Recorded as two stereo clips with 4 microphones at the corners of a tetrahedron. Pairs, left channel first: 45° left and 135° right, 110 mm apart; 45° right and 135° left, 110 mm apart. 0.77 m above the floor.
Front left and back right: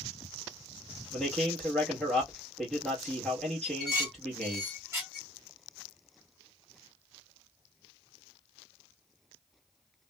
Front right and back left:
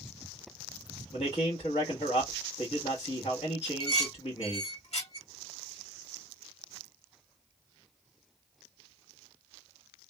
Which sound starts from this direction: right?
Dishes clattering, at 3.6 s.